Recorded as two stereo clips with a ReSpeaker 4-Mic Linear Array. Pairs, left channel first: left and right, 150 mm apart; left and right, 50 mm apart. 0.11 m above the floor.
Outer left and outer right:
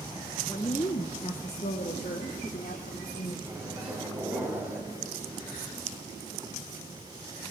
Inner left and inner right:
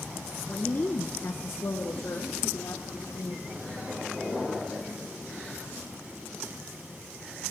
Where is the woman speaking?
20° left (ahead or behind), 1.1 m; by 3.4 s 65° left (ahead or behind), 3 m.